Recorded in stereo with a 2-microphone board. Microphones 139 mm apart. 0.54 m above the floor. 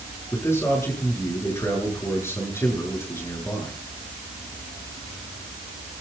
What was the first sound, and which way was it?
A man speaking, 20° left (ahead or behind).